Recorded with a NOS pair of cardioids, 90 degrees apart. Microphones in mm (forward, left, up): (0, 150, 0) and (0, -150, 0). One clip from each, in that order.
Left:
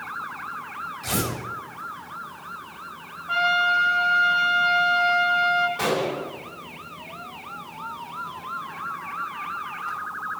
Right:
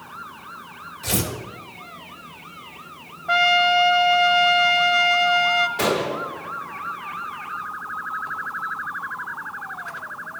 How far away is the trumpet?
About 0.7 m.